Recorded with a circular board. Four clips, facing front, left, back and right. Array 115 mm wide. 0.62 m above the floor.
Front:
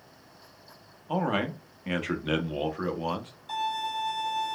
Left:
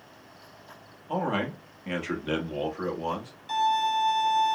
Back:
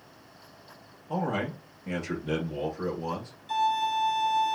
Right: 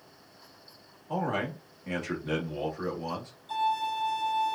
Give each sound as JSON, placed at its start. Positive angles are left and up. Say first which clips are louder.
{"t": 1.1, "sound": "a man speaking", "louder": "left 2 dB, front 2 dB", "azimuth_deg": 25, "distance_m": 1.1}
{"t": 3.5, "sound": "a violin", "louder": "left 4 dB, back 5 dB", "azimuth_deg": 90, "distance_m": 2.5}